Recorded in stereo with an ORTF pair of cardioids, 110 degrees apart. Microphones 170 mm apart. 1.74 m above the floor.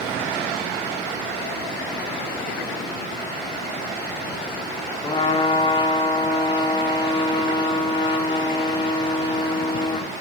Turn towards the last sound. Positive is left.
turn(degrees=25)